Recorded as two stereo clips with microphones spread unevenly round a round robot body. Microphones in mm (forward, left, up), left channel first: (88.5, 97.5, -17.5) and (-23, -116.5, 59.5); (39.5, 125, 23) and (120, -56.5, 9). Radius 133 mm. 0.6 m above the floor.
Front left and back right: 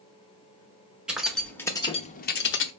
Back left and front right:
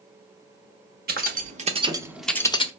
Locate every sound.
1.1 s keys jangling: 25° right, 1.4 m; by 2.7 s 50° left, 0.9 m